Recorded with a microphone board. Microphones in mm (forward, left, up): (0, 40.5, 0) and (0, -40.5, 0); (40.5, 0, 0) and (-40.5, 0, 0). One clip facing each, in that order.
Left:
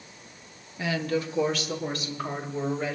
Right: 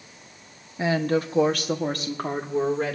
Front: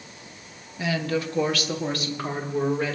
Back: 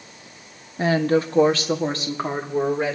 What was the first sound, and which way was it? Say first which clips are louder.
A woman speaking: right 5 dB, back 7 dB; 145° right.